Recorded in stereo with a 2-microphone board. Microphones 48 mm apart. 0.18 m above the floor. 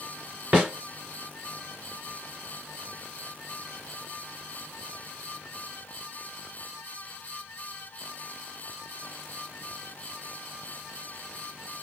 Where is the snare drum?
35° right (ahead or behind), 2.5 m.